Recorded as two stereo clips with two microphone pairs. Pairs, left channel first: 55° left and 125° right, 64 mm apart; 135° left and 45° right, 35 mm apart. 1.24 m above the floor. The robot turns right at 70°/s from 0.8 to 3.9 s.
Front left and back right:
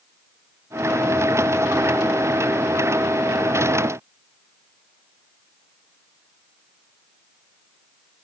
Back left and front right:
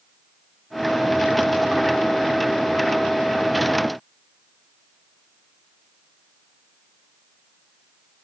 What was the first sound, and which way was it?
Only background noise.